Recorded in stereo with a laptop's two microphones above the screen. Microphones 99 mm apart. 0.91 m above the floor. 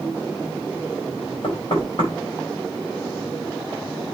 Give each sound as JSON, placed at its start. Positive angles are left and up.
{"t": 1.4, "sound": "knocking", "side_deg": 50, "distance_m": 4.5}